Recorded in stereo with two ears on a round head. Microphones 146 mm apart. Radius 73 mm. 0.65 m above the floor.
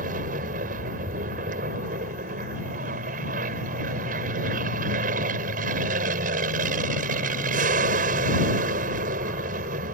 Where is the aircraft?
50° right (ahead or behind).